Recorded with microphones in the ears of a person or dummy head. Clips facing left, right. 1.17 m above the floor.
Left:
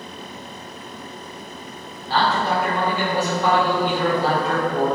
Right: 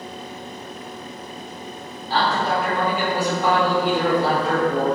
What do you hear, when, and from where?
2.1 s a man speaking: 10° right (ahead or behind), 1.6 m